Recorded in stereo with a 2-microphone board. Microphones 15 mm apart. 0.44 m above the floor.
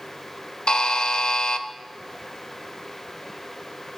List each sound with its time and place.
0.7 s a buzzer: 65° left (ahead or behind), 0.5 m